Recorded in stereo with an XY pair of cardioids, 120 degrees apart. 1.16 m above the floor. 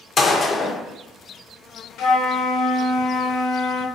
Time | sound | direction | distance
0.2 | a gunshot | 30° left | 0.6 m
2.0 | a flute | 65° left | 0.6 m